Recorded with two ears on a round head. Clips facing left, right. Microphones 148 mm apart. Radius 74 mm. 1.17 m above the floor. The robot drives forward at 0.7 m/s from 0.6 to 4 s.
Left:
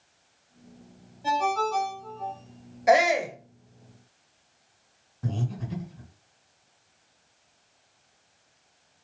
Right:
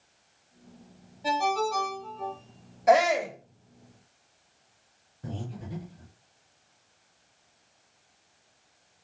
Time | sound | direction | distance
1.2 | a ringtone | 15° right (ahead or behind) | 1.6 m
2.9 | a shout | 10° left (ahead or behind) | 1.1 m
5.2 | breathing | 85° left | 1.5 m